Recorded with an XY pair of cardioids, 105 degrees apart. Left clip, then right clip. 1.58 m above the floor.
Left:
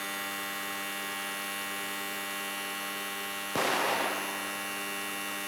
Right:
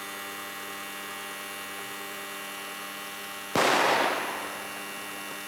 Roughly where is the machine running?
Ahead.